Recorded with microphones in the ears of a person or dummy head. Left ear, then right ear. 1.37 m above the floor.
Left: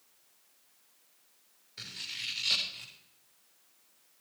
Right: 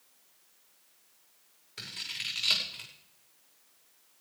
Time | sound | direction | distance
1.8 | scissors | 25° right (ahead or behind) | 5.5 m